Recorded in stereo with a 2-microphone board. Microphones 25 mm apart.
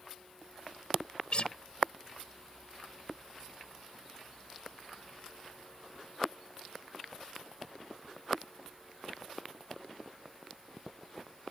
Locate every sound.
1.3 s a guitar: 45° left (ahead or behind)